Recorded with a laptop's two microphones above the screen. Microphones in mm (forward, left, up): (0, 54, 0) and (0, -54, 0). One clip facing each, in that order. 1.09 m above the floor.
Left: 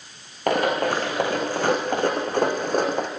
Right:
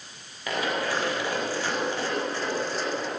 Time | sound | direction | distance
0.5 | running footsteps | 55° left (ahead or behind) | 5 m